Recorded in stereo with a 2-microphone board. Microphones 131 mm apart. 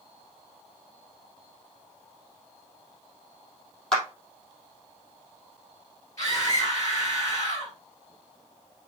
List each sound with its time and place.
3.9 s a clap: 5° left (ahead or behind), 3 m
6.2 s a scream: 25° left (ahead or behind), 3 m